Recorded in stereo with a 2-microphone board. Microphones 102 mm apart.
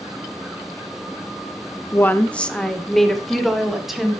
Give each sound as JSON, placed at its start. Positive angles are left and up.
{"t": 1.9, "sound": "a woman speaking", "side_deg": 20, "distance_m": 0.6}